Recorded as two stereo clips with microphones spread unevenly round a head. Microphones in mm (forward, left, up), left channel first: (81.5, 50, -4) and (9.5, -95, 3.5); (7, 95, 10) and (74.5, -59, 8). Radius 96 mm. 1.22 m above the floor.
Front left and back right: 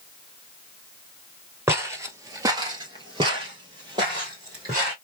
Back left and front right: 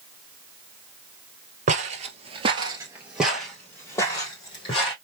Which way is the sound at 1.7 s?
50° right.